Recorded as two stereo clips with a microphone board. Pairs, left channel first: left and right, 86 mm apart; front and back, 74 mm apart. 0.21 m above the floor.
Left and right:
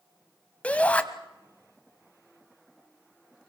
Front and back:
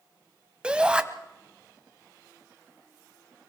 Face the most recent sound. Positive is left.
turn(degrees=135)